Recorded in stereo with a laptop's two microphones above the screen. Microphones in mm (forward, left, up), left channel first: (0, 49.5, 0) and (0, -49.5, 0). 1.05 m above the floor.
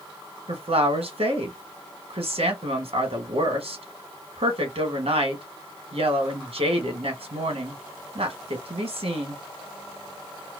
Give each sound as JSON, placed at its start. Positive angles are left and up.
{"t": 0.5, "sound": "a woman speaking", "side_deg": -80, "distance_m": 1.2}